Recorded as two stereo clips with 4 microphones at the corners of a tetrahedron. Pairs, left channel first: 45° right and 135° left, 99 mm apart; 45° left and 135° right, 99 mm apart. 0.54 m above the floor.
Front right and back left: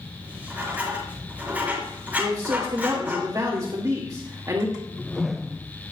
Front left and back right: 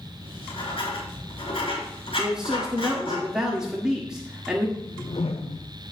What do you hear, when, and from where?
0.2 s writing: 60° left, 4.5 m
2.2 s a man speaking: 145° left, 1.5 m
4.8 s a whoosh: 45° left, 0.8 m